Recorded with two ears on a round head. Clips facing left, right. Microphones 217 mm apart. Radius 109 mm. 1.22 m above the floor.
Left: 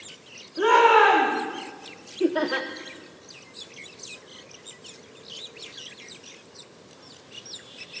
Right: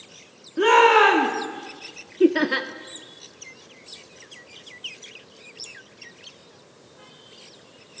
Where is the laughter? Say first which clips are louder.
Right 5 dB; 35° right (ahead or behind), 0.8 m.